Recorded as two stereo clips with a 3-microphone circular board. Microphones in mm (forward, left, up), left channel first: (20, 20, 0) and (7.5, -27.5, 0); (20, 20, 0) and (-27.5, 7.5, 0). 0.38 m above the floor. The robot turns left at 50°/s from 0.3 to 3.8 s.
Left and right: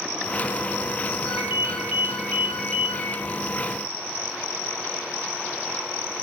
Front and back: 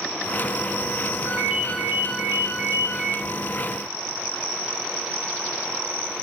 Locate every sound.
1.2 s a ringtone: 115° right, 0.7 m; by 3.2 s 145° left, 0.7 m